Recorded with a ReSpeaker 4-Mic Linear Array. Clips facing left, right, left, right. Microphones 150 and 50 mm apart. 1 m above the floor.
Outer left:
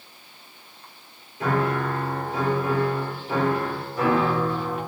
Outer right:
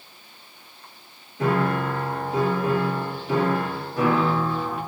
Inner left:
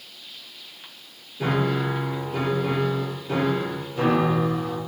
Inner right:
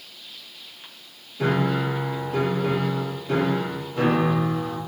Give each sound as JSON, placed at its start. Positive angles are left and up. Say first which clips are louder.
{"t": 1.4, "sound": "a piano", "louder": "outer right 1 dB, inner right 1 dB", "side_deg": -70, "distance_m": 2.0}